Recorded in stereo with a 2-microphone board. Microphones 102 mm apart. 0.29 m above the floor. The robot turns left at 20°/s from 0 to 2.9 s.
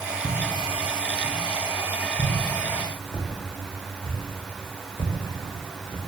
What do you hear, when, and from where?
0.2 s footsteps: 5° left (ahead or behind), 6 m; by 6.0 s 45° left (ahead or behind), 11 m